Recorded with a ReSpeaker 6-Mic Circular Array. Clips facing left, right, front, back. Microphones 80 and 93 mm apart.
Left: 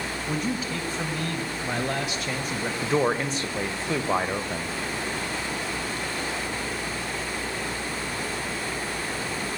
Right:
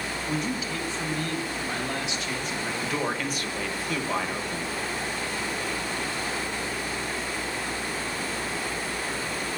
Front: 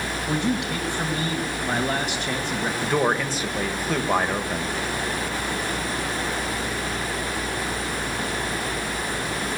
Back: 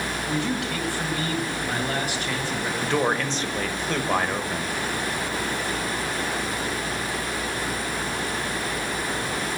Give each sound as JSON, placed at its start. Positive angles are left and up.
{"t": 0.3, "sound": "a man speaking", "azimuth_deg": 60, "distance_m": 1.7}
{"t": 2.8, "sound": "a man speaking", "azimuth_deg": 75, "distance_m": 1.0}